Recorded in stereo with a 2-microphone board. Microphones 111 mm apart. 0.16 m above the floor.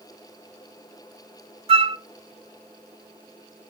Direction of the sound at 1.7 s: 60° right (ahead or behind).